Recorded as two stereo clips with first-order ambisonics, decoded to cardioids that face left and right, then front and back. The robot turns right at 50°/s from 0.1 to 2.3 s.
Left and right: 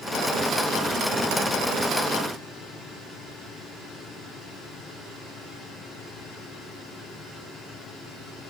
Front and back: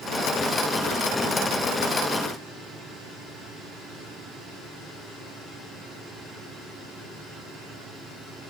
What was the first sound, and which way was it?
Only background noise.